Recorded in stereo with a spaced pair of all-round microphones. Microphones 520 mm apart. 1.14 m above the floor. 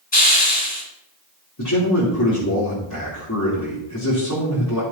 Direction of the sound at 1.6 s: 35° left (ahead or behind).